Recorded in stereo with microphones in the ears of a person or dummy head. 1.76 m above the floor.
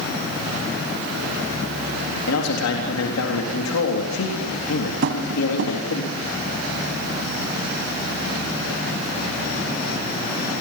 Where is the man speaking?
80° left, 4 m.